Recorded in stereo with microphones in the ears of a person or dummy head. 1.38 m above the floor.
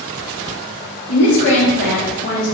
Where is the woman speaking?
60° left (ahead or behind), 0.7 m.